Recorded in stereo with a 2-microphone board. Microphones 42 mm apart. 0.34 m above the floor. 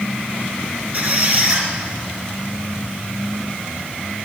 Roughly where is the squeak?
Right.